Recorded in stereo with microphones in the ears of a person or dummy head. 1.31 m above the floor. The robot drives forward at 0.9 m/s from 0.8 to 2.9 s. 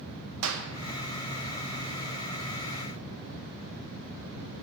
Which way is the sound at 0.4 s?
80° right.